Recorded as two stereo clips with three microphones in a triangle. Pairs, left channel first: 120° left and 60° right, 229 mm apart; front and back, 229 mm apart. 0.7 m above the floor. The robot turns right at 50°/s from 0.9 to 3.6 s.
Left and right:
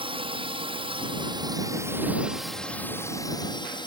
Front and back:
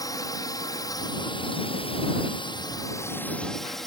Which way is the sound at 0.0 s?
50° right.